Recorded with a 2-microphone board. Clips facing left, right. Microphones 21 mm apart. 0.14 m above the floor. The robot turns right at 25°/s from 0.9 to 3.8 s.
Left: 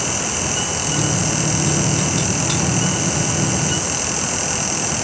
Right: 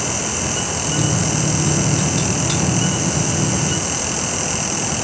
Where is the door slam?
I don't hear a door slam.